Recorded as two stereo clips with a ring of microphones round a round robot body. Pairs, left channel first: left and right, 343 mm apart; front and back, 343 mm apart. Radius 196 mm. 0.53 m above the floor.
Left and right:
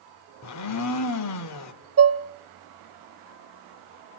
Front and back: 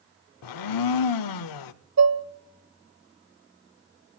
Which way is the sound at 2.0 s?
140° right.